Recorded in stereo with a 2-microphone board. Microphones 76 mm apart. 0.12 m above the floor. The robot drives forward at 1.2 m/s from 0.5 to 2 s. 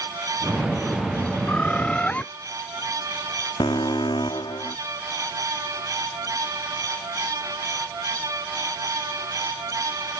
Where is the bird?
20° left (ahead or behind); by 2.2 s 15° left (ahead or behind).